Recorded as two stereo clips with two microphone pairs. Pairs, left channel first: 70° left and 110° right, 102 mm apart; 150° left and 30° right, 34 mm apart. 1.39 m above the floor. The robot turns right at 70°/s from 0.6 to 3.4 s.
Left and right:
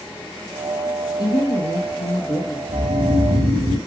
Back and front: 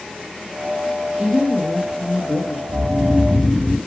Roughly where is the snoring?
Behind right.